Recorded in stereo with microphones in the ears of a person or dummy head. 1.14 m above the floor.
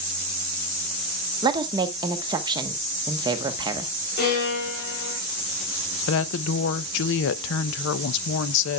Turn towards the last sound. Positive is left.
turn(degrees=70)  # may be behind; listen again after turning